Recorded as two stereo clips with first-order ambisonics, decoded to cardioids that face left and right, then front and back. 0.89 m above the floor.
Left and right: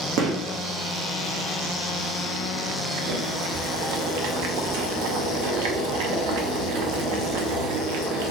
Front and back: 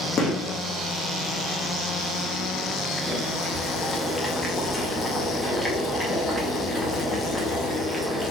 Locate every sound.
0.2 s a gunshot: 60° right, 0.9 m
3.0 s boiling: 85° right, 0.7 m